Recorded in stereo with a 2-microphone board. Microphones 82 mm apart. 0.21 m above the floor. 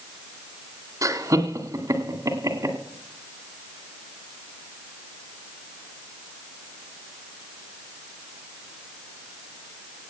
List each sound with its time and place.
1.0 s laughter: 45° right (ahead or behind), 2.0 m